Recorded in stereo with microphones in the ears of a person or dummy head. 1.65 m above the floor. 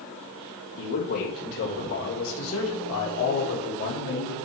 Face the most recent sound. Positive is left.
turn(degrees=55)  # may be behind; listen again after turning